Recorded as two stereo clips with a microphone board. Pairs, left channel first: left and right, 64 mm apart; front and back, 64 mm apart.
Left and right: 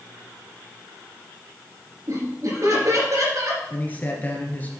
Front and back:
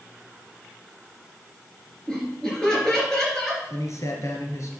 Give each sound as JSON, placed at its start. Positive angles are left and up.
{"t": 2.1, "sound": "laughter", "azimuth_deg": -80, "distance_m": 3.5}
{"t": 3.7, "sound": "a man speaking", "azimuth_deg": 30, "distance_m": 2.5}